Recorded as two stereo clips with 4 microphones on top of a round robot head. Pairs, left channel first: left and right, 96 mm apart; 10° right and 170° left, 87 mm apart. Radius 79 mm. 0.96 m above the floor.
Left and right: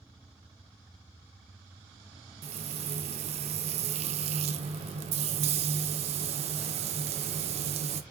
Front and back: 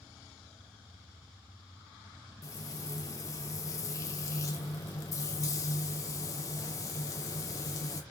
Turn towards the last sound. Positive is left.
turn(degrees=-70)